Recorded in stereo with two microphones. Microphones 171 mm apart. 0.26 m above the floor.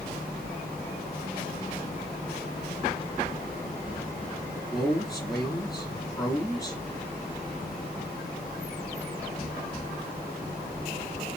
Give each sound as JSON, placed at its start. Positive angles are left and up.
{"t": 4.7, "sound": "a man speaking", "side_deg": 20, "distance_m": 3.0}